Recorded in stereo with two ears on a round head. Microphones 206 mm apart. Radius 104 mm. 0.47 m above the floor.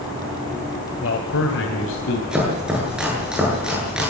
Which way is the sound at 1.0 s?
60° left (ahead or behind).